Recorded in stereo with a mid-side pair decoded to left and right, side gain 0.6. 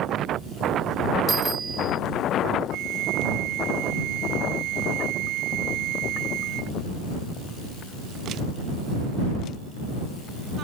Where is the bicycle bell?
30° right.